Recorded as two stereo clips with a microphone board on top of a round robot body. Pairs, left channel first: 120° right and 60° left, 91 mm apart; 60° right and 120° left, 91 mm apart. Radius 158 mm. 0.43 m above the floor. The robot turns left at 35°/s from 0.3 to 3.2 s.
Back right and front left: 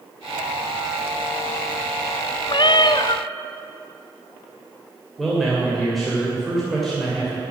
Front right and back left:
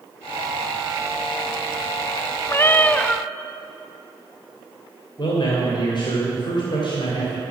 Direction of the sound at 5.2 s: 30° right.